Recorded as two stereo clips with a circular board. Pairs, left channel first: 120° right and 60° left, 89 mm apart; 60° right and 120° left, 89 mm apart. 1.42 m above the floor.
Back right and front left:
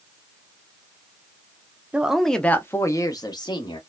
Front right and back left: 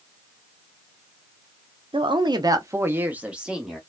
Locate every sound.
1.9 s a woman speaking: 135° left, 0.6 m; by 3.8 s 155° right, 1.1 m